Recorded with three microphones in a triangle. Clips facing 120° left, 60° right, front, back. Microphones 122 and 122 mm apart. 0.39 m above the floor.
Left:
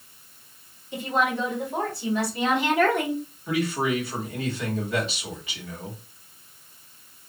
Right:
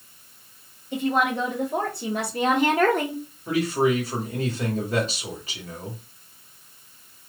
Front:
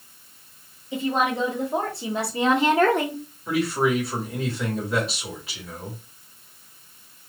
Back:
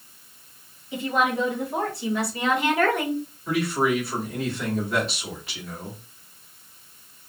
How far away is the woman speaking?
About 1.9 m.